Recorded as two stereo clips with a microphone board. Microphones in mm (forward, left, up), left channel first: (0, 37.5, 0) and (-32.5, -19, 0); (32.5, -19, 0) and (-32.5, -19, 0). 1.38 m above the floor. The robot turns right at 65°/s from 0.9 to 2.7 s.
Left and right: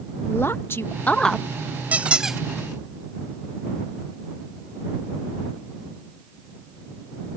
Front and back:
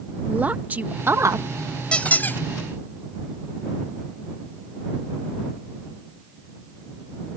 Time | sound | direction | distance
0.3 | a woman speaking | 115° left | ?
1.9 | a squeak | 65° right | ?